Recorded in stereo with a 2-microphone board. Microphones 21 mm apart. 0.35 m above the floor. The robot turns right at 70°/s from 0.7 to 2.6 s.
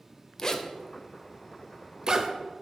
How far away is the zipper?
About 0.5 m.